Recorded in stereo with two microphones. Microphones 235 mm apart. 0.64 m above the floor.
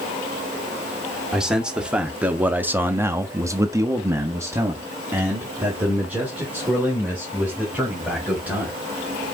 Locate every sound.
1.3 s a man speaking: centre (ahead or behind), 1.3 m; by 8.8 s 5° right (ahead or behind), 3 m